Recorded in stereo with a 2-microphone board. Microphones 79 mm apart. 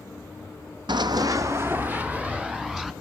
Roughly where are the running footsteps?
Right.